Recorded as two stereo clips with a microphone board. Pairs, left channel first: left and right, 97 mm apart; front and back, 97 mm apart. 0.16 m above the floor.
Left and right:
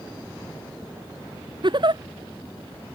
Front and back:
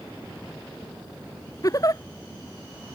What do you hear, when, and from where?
1.6 s a giggle: 55° right